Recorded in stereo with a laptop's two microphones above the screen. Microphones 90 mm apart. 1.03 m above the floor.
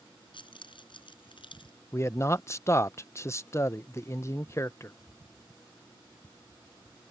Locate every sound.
0.3 s keys jangling: 60° left (ahead or behind)
1.9 s a man speaking: 30° left (ahead or behind)